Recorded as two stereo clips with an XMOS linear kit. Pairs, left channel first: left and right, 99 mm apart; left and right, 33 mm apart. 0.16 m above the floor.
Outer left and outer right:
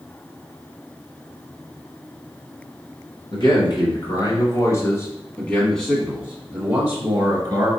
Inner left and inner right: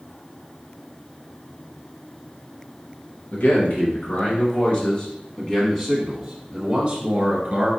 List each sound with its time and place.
3.3 s a man speaking: 55° left (ahead or behind), 1.8 m; by 7.7 s 40° right (ahead or behind), 1.6 m